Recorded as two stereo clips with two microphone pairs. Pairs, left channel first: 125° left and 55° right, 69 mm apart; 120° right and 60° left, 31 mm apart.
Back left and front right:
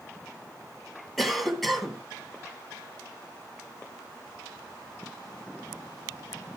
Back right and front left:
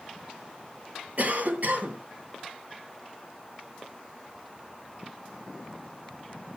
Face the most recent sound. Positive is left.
turn(degrees=35)